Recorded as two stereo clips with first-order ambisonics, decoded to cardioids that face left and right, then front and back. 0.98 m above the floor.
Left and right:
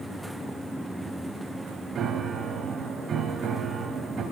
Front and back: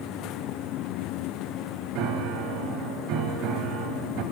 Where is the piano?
150° right, 1.7 m.